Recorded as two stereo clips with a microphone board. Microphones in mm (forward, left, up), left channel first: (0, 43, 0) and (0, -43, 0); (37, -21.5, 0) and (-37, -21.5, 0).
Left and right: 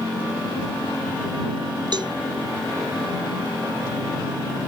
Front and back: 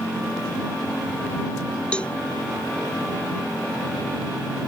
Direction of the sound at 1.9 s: 75° right.